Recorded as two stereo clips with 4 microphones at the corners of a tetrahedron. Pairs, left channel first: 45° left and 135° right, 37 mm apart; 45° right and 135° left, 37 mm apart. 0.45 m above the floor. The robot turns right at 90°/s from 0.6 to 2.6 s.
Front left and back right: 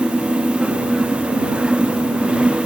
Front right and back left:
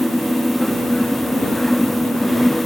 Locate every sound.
Only background noise.